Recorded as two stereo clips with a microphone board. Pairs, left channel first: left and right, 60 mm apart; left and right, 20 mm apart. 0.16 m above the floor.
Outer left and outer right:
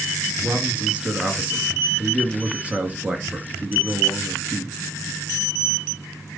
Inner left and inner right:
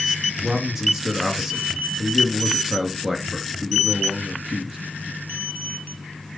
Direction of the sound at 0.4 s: 20° right (ahead or behind).